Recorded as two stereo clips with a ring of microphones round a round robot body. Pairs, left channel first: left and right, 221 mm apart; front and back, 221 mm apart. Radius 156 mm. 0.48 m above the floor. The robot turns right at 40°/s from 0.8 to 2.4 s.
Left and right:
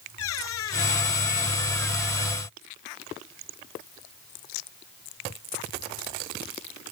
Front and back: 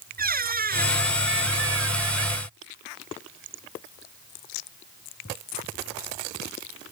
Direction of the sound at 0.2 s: 135° left.